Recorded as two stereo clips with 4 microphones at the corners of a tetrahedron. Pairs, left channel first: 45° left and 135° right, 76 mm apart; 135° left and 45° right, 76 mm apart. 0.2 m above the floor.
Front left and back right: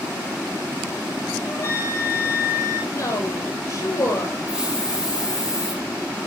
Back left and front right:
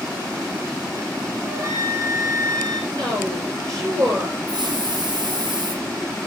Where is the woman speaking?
Straight ahead, 3 m.